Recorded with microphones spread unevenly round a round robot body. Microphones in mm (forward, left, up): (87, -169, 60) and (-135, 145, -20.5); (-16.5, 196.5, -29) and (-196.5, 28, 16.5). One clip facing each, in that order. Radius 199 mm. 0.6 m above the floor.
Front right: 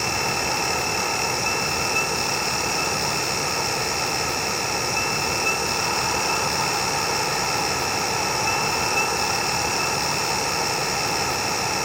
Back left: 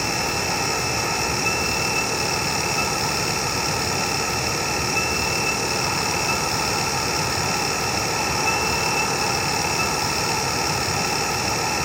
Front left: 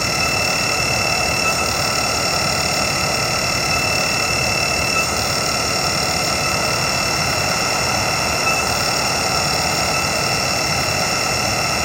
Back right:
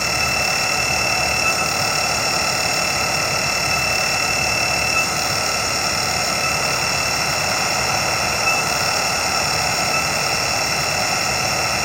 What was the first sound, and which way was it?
Only background noise.